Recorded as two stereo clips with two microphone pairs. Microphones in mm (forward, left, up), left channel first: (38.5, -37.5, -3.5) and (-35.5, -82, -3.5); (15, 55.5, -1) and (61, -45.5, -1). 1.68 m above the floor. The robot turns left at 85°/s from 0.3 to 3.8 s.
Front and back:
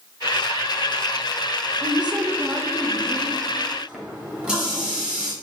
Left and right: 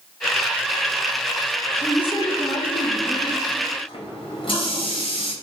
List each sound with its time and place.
1.8 s a woman speaking: 155° right, 0.7 m; by 3.4 s 70° left, 0.7 m
3.9 s a running tap: 135° left, 1.5 m